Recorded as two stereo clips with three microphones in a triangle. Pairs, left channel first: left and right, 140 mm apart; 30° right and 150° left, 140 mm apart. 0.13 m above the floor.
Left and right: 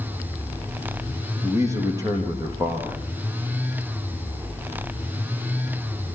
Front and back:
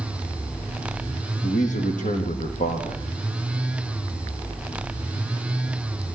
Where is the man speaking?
25° right, 5.5 m.